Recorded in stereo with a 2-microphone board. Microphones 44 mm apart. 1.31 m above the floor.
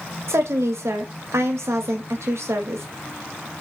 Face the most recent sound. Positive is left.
turn(degrees=-70)  # may be behind; listen again after turning